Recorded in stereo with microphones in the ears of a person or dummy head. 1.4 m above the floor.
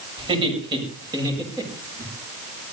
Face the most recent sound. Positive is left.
turn(degrees=-15)  # may be behind; listen again after turning